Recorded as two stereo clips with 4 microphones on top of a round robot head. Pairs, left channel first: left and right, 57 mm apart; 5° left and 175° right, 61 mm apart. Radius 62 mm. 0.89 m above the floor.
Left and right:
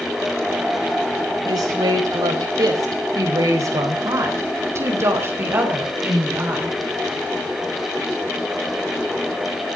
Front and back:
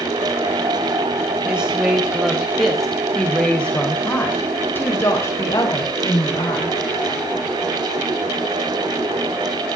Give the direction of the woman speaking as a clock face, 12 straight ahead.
3 o'clock.